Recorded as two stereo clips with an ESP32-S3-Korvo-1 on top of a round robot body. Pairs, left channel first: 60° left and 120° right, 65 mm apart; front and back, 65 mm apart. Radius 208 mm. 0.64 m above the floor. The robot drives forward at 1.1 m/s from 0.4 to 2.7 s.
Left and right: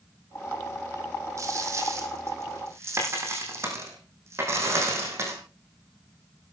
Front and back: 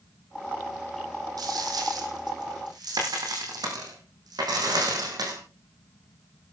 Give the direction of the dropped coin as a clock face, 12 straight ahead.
5 o'clock.